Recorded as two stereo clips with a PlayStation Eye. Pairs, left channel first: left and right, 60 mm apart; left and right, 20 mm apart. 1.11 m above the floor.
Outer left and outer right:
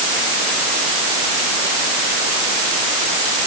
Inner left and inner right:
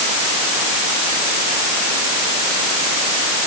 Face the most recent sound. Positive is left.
No sound to turn to.